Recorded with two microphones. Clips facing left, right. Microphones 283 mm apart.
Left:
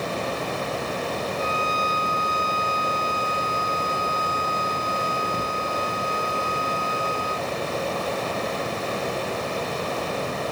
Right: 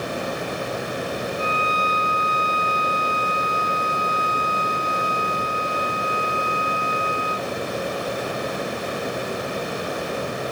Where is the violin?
55° left (ahead or behind).